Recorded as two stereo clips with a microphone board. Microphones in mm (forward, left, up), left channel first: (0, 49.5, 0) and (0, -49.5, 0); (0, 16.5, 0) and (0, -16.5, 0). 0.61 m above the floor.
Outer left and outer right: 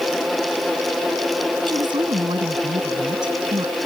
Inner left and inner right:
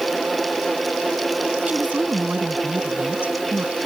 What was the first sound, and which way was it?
A woman speaking, 50° right (ahead or behind).